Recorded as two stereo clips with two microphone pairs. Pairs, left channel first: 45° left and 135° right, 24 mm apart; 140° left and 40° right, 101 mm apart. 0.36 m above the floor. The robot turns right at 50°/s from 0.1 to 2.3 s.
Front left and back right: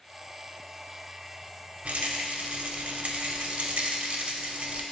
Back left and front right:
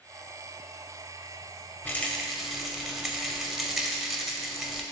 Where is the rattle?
150° right, 0.6 m; by 4.8 s 125° right, 0.6 m.